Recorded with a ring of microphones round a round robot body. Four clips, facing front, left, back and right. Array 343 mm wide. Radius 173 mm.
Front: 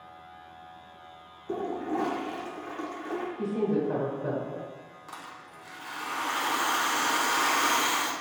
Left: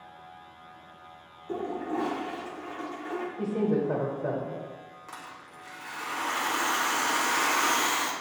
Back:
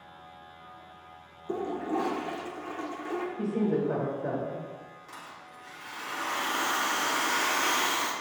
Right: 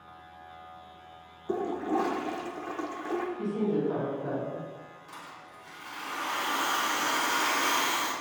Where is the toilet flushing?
95° right, 0.6 m.